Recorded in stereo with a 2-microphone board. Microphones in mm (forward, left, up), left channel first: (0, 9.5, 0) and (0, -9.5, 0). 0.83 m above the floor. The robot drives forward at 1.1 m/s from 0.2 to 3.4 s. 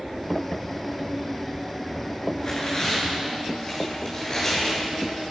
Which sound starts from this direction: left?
Tearing paper, at 2.4 s.